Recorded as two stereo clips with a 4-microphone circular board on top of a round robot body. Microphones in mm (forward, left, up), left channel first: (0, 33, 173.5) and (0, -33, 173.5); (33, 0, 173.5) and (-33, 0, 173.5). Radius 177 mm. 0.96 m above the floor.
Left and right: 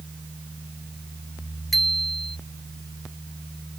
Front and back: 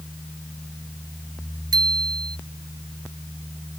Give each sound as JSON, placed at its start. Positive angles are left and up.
{"t": 1.7, "sound": "a bicycle bell", "azimuth_deg": 175}